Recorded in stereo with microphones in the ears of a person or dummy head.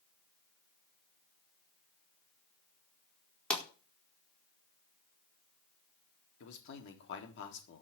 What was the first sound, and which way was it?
A pop, 10° left (ahead or behind).